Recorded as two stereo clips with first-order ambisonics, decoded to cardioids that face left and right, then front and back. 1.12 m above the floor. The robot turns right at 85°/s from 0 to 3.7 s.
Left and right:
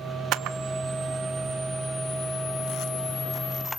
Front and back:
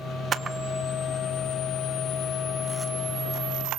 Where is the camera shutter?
120° right, 0.8 m; by 3.8 s 165° left, 0.8 m.